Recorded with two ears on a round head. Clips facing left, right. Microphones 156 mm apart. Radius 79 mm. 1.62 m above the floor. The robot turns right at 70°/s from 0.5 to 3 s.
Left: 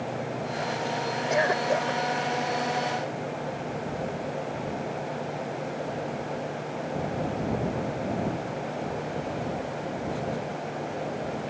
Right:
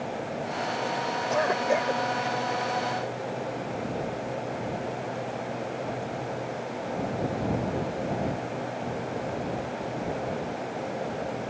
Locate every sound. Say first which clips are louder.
1.3 s a cough: even; 160° left; by 2.0 s 150° right